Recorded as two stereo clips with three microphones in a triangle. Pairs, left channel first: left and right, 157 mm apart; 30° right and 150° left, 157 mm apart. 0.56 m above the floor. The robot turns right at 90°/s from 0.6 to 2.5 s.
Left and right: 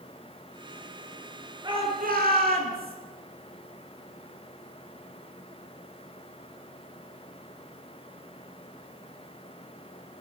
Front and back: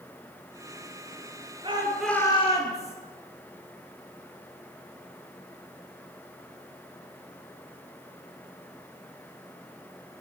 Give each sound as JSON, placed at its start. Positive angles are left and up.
{"t": 1.6, "sound": "a shout", "azimuth_deg": -155, "distance_m": 10.0}